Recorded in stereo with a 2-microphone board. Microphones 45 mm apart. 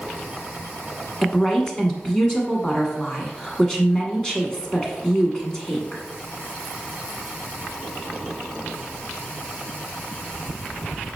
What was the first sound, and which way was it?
A woman speaking, 15° left (ahead or behind).